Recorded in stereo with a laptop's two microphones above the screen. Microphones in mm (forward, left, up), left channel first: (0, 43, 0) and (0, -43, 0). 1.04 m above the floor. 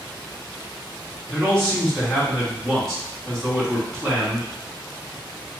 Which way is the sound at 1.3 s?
Centre (ahead or behind).